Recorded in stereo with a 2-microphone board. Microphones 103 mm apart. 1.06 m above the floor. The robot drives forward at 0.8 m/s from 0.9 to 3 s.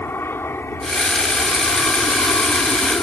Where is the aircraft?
20° left (ahead or behind); by 3.0 s 25° left (ahead or behind).